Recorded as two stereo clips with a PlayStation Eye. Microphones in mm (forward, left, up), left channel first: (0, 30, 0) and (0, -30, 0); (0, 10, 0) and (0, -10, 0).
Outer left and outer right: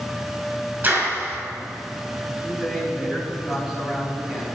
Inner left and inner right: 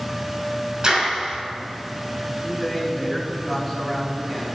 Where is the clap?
35° right (ahead or behind), 4.5 m.